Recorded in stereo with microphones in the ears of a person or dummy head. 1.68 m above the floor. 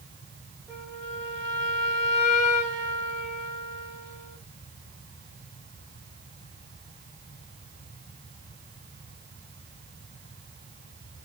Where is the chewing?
No chewing in this recording.